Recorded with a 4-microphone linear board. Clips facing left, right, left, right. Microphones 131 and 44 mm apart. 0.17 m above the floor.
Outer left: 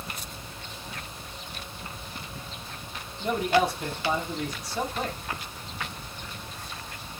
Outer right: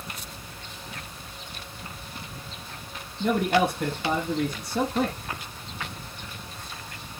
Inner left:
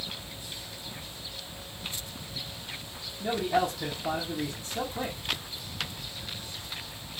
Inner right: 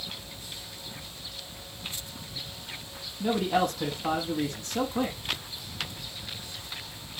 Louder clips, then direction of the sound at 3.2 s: Outer right 1 dB, inner right 1 dB; 65° right (ahead or behind).